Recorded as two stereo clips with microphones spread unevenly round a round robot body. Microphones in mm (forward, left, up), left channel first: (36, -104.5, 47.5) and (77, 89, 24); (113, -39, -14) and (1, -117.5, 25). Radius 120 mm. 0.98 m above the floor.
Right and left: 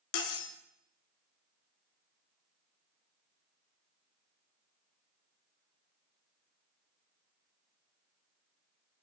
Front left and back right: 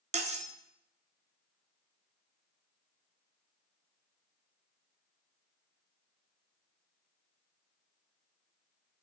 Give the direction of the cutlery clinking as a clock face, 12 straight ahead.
4 o'clock.